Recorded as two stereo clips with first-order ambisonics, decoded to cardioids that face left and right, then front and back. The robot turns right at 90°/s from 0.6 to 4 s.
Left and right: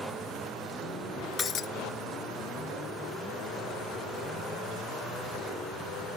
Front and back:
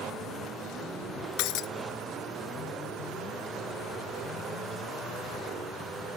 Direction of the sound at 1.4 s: 20° left.